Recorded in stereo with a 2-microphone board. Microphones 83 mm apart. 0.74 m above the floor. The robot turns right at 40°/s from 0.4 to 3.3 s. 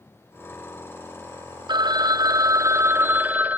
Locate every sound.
1.7 s a phone ringing: 85° right, 0.5 m; by 3.6 s 25° right, 0.5 m